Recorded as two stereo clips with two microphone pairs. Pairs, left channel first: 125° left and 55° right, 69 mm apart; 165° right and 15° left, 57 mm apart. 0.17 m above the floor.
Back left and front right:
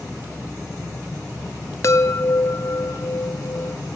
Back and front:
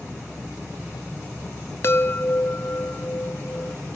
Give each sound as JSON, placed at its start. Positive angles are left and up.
{"t": 1.8, "sound": "a chime", "azimuth_deg": 165, "distance_m": 0.8}